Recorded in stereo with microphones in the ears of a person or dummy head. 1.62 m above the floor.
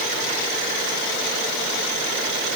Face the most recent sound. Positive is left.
No sound to turn to.